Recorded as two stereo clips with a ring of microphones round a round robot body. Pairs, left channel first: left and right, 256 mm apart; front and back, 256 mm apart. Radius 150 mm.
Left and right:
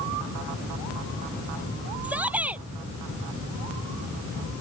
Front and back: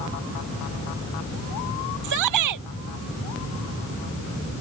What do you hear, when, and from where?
2.0 s a shout: 175° right